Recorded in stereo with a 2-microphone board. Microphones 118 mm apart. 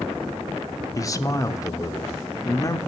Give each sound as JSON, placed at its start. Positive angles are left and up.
{"t": 0.9, "sound": "a man speaking", "side_deg": 30, "distance_m": 0.9}